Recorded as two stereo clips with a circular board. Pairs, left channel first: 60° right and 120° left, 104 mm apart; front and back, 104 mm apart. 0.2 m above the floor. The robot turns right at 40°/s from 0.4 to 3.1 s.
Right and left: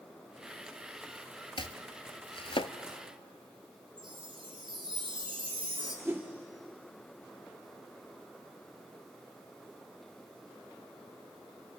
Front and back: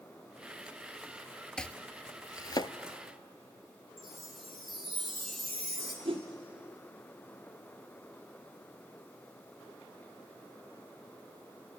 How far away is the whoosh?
About 2 m.